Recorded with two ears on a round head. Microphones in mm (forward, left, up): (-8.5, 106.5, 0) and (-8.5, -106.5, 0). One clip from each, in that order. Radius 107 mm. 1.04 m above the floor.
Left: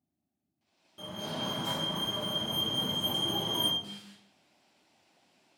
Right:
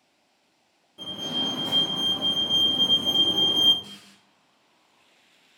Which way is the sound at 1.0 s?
15° left (ahead or behind).